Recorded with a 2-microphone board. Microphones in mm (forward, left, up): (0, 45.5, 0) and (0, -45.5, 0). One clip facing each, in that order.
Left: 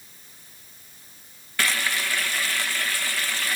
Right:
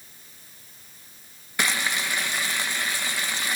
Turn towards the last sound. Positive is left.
turn(degrees=-20)  # may be behind; listen again after turning